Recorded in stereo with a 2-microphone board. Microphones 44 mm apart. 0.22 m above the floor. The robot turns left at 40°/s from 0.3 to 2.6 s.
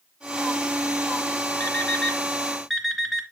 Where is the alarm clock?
40° left (ahead or behind), 1.5 m; by 3.2 s 5° left (ahead or behind), 1.5 m.